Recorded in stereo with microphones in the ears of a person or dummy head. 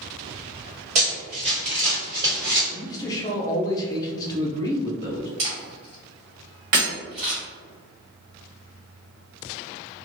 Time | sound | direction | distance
0.9 | running footsteps | 40° right (ahead or behind) | 1.9 m
2.7 | a man speaking | 25° left (ahead or behind) | 0.7 m
5.4 | a camera shutter | 25° right (ahead or behind) | 1.1 m
6.7 | breaking glass | 30° right (ahead or behind) | 0.8 m